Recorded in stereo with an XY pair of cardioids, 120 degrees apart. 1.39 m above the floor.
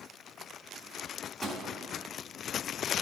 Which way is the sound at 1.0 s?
Straight ahead.